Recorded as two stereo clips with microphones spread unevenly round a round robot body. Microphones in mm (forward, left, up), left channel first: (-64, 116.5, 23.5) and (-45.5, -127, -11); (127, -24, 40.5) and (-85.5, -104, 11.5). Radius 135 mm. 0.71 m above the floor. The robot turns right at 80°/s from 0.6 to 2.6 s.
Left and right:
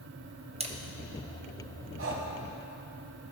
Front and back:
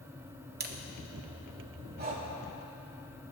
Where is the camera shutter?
140° right, 1.3 m; by 0.8 s 125° right, 1.3 m.